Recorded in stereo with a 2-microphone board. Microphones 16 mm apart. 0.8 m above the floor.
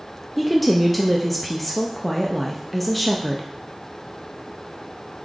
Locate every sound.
0.4 s a woman speaking: centre (ahead or behind), 0.5 m